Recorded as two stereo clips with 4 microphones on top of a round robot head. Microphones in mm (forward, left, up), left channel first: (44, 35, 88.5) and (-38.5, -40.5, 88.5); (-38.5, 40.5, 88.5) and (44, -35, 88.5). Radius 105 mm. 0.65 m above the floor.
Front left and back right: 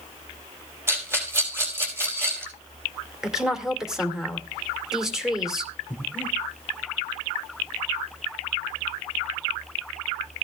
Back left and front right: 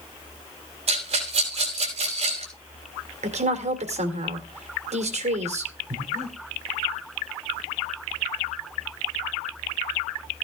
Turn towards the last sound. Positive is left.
turn(degrees=-65)